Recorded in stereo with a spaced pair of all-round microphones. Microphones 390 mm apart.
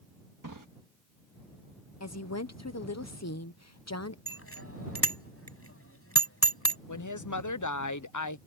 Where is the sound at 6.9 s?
55° left (ahead or behind).